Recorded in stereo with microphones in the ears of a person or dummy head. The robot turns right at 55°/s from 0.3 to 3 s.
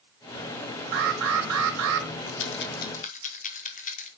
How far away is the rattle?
About 1.1 m.